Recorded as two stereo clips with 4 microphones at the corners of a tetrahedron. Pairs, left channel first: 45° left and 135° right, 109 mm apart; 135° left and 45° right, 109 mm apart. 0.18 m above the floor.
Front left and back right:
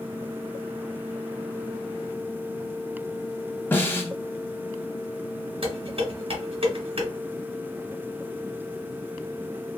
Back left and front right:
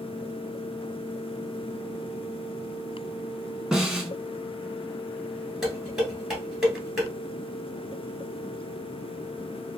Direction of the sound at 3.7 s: 30° left.